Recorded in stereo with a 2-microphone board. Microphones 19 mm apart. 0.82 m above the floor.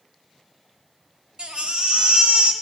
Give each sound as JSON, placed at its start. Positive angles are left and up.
{"t": 1.4, "sound": "a baby crying", "side_deg": -65, "distance_m": 3.5}